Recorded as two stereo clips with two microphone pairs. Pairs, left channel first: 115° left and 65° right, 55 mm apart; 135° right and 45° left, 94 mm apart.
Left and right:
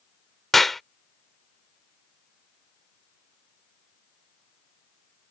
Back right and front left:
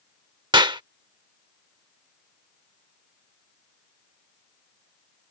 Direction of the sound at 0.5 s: 30° left.